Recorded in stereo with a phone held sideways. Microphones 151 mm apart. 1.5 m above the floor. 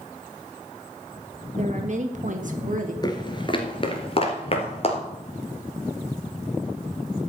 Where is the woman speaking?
50° right (ahead or behind), 1.3 m; by 2.9 s 60° right (ahead or behind), 2 m.